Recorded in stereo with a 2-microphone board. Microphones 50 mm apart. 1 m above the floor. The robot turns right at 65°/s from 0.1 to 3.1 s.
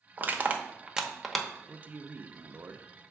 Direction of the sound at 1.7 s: 150° right.